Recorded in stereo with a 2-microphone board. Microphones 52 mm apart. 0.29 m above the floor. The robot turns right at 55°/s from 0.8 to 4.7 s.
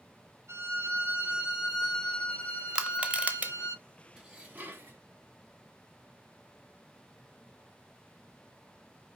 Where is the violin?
60° right, 3 m; by 3.8 s 100° left, 3 m.